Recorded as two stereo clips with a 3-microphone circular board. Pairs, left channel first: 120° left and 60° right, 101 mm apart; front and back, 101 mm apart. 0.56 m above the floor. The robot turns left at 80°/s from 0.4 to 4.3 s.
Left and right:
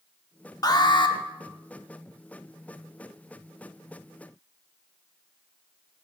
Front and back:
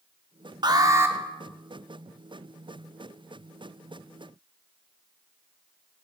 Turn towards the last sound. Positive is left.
turn(degrees=-140)